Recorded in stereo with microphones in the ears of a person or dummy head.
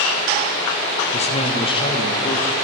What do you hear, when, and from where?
1.1 s a man speaking: 35° left (ahead or behind), 1.2 m; by 2.6 s 20° left (ahead or behind), 2.5 m